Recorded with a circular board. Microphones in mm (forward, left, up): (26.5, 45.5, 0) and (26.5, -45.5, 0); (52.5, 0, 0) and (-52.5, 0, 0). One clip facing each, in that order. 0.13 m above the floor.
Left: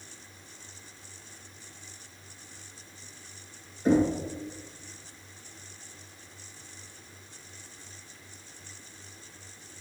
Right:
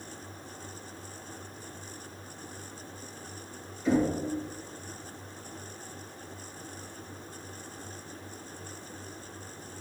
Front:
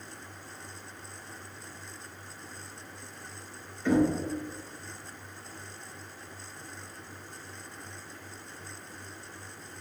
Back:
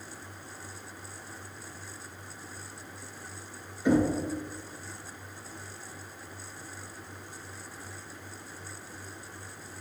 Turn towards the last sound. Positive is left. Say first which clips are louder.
# left 3 dB, even
turn(degrees=110)